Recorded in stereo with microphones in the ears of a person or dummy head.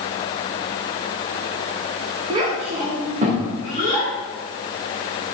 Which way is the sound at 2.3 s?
25° right (ahead or behind).